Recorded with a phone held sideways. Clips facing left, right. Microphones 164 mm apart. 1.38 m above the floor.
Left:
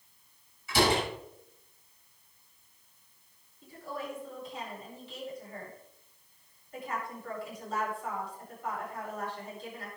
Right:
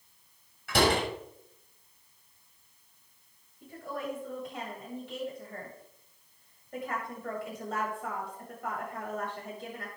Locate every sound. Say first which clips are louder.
0.7 s a door slam: right 1 dB; 70° right (ahead or behind), 6.5 m
3.6 s a woman speaking: right 2 dB; 65° right (ahead or behind), 7.5 m